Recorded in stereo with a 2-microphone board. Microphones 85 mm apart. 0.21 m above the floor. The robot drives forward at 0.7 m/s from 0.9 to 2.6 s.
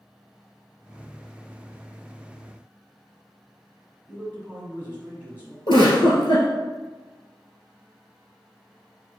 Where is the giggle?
65° left (ahead or behind), 1.7 m.